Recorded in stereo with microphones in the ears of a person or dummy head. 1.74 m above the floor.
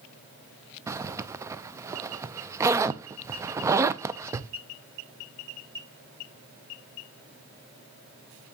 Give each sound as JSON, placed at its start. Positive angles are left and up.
{"t": 0.9, "sound": "a zipper", "side_deg": -15, "distance_m": 0.6}